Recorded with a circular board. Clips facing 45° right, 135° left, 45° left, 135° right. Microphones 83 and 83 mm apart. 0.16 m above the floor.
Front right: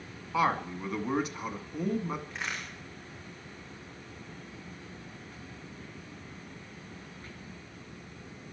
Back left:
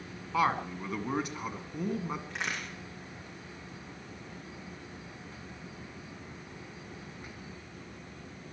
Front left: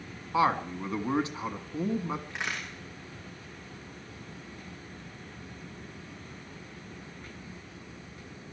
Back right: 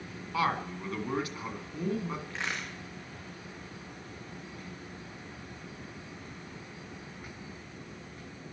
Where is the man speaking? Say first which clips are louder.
Front right 1 dB, front left 4 dB; 45° left, 1.4 m.